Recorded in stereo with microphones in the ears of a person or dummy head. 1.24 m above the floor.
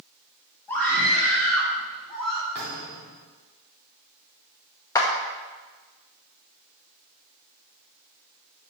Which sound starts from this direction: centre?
A scream, at 0.7 s.